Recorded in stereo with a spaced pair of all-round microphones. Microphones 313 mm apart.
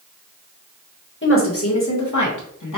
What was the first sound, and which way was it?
A woman speaking, 40° left (ahead or behind).